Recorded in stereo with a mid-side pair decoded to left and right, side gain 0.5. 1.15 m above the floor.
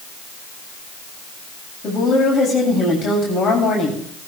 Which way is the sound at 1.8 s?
55° left.